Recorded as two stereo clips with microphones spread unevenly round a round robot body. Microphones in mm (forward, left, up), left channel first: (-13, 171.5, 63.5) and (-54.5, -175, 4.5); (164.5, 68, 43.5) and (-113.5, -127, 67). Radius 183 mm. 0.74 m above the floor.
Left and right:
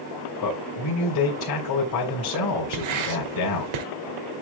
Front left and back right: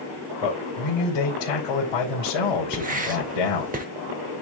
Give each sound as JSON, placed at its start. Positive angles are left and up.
{"t": 0.4, "sound": "a man speaking", "azimuth_deg": 40, "distance_m": 3.0}
{"t": 2.7, "sound": "writing", "azimuth_deg": -75, "distance_m": 1.2}